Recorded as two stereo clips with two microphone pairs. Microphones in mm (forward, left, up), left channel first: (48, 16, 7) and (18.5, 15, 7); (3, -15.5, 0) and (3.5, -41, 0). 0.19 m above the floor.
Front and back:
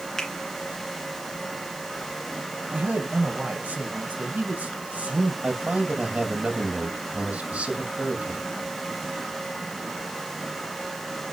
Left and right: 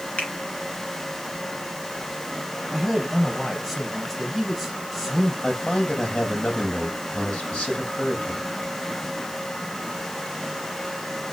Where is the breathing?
I don't hear breathing.